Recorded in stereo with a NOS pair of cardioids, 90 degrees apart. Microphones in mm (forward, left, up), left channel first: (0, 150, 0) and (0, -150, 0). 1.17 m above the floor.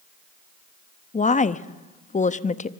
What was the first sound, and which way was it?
A woman speaking, 25° left.